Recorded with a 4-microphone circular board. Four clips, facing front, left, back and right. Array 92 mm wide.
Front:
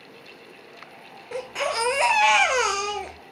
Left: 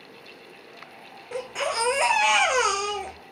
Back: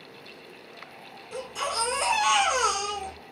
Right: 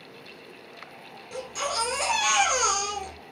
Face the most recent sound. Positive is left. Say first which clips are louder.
# left 3 dB, front 4 dB
turn(degrees=35)